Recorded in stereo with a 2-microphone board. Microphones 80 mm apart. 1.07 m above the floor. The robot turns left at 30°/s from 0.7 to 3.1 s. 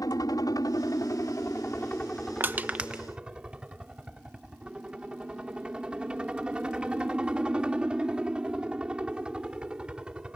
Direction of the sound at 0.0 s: 60° left.